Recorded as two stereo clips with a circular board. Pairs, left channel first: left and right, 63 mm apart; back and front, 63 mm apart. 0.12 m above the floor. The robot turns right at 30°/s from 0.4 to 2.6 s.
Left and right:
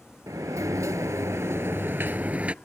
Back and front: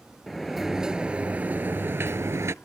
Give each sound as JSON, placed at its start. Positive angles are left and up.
{"t": 0.3, "sound": "a sliding door", "azimuth_deg": -90}